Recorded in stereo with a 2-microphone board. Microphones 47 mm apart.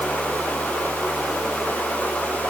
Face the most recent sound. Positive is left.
No sound to turn to.